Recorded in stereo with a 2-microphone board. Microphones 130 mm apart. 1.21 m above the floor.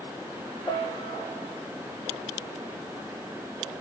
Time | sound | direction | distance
0.7 | a piano | 35° left (ahead or behind) | 0.7 m